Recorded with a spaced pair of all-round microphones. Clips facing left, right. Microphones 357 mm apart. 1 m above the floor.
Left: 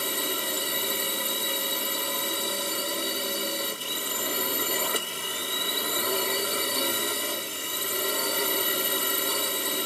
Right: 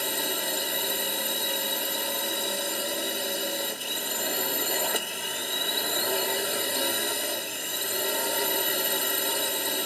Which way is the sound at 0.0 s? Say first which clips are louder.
Even; 10° left (ahead or behind).